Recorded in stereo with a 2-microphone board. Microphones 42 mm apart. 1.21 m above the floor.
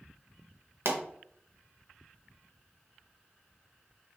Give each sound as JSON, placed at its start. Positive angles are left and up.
{"t": 0.8, "sound": "a pop", "side_deg": -85, "distance_m": 0.9}